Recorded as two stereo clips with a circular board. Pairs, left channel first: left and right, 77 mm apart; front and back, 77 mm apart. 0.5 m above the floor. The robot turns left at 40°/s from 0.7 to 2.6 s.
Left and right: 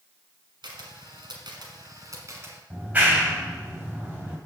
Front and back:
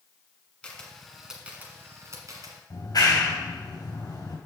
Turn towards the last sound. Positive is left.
turn(degrees=-20)